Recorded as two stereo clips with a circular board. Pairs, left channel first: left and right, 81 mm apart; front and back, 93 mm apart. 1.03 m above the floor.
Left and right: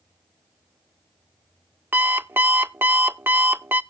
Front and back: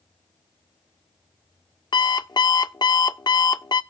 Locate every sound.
1.9 s an alarm clock: 30° right, 0.5 m